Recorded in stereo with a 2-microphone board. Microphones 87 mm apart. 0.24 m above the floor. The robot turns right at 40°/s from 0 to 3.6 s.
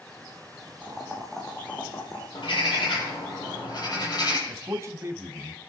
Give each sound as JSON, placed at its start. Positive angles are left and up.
{"t": 0.8, "sound": "boiling", "azimuth_deg": -20, "distance_m": 4.0}
{"t": 2.3, "sound": "a bird", "azimuth_deg": 65, "distance_m": 7.5}
{"t": 4.5, "sound": "a man speaking", "side_deg": -35, "distance_m": 1.8}